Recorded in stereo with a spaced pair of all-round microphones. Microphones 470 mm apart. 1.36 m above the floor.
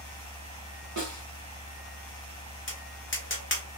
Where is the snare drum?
40° right (ahead or behind), 0.8 m.